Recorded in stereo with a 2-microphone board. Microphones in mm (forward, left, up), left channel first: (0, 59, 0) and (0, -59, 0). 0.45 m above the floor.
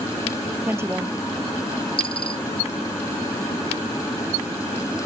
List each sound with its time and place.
0.7 s a woman speaking: 20° right (ahead or behind)
2.0 s a dropped coin: 50° left (ahead or behind)